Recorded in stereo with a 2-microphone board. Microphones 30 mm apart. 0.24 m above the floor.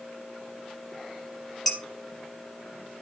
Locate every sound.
1.7 s dishes clattering: centre (ahead or behind), 4 m